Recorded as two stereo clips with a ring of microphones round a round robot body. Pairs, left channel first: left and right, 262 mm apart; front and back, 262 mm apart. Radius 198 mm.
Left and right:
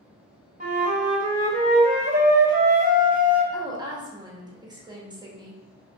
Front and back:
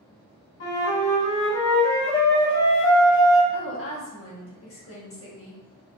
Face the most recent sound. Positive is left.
turn(degrees=-15)